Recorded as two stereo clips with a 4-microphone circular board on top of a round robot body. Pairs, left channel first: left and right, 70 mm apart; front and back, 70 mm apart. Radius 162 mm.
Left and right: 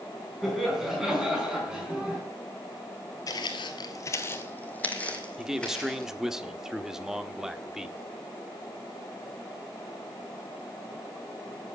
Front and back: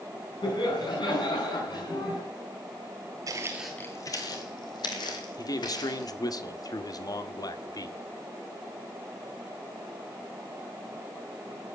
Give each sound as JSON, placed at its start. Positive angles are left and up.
{"t": 0.4, "sound": "laughter", "azimuth_deg": 0, "distance_m": 5.0}
{"t": 3.3, "sound": "footsteps", "azimuth_deg": 135, "distance_m": 0.9}
{"t": 5.4, "sound": "a man speaking", "azimuth_deg": -5, "distance_m": 1.6}